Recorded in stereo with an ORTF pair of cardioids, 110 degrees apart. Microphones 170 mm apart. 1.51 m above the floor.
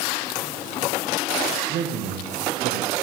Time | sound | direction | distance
1.7 | a man speaking | 65° right | 1.1 m